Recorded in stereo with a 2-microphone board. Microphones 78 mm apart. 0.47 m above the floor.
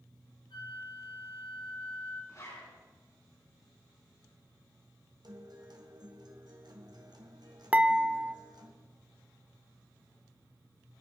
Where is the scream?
I don't hear a scream.